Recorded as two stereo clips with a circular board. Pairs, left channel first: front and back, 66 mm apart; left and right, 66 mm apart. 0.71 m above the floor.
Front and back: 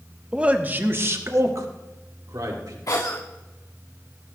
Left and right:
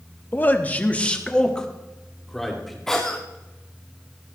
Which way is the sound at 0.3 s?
115° left.